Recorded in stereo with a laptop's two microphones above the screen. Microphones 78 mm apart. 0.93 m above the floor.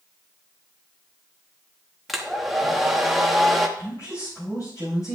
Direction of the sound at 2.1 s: Centre (ahead or behind).